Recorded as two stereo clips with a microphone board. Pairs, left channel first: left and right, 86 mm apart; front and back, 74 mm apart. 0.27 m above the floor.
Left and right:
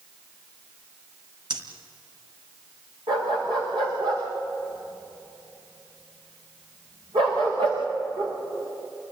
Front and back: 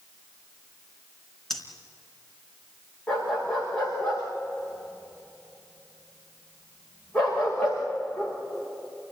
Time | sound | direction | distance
1.5 | breathing | 85° right | 3.5 m
3.1 | a dog barking | 75° right | 8.5 m